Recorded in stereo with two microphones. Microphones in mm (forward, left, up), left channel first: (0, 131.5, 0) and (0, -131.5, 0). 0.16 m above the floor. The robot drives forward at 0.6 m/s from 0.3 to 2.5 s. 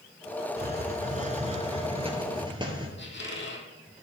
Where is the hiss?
40° right (ahead or behind), 0.8 m; by 2.9 s 20° right (ahead or behind), 1.6 m.